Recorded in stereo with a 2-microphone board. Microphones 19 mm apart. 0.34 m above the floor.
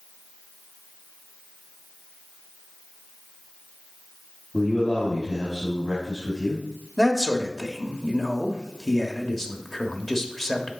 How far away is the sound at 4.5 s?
About 1.8 m.